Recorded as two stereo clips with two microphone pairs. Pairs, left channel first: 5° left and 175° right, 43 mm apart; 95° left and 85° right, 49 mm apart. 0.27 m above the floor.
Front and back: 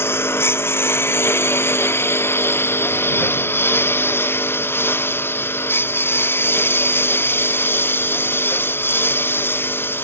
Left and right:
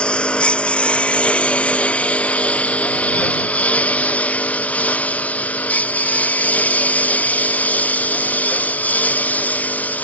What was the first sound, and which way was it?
A lawn mower, 25° left.